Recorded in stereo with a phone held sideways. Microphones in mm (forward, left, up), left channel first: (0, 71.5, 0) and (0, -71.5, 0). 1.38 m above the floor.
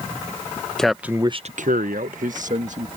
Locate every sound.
0.8 s a man speaking: 5° left (ahead or behind); by 2.9 s 60° right (ahead or behind)